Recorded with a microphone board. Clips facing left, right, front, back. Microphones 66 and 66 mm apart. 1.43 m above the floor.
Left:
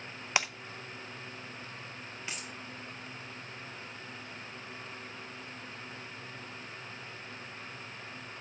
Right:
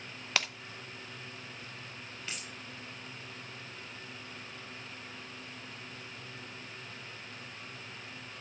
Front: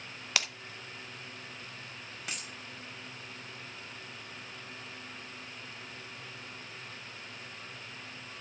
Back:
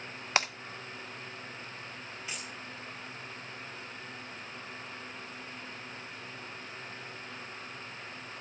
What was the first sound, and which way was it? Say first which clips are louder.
Breaking glass: left 2 dB, back 5 dB; 150° left.